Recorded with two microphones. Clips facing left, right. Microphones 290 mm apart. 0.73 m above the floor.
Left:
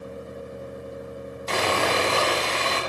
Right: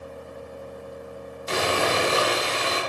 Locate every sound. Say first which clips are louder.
1.5 s sawing: even; 10° right (ahead or behind), 2 m